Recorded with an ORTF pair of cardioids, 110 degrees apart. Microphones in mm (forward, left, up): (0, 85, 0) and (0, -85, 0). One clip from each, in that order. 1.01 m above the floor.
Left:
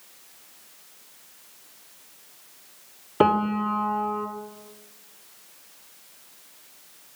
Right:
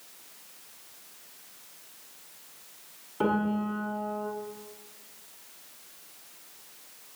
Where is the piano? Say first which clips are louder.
Left 8 dB; 70° left, 1.4 m.